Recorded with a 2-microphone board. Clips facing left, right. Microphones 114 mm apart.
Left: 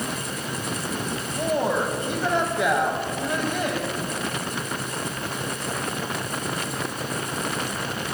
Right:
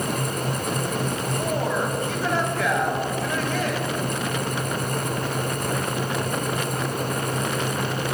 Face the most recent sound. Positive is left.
turn(degrees=20)  # may be behind; listen again after turning